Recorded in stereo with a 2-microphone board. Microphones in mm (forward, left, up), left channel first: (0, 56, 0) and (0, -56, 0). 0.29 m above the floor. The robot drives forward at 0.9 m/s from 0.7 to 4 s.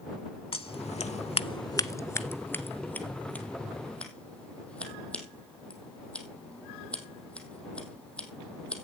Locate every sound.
0.5 s scissors: 55° left (ahead or behind), 0.6 m; by 8.8 s 10° left (ahead or behind), 2.5 m